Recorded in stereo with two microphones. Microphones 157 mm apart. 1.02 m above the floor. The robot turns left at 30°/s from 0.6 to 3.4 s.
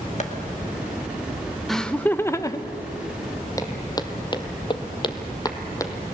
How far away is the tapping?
About 1.9 m.